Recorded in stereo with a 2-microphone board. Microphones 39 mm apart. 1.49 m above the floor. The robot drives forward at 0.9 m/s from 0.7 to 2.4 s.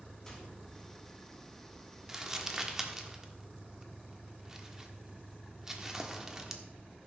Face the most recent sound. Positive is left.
turn(degrees=-10)  # may be behind; listen again after turning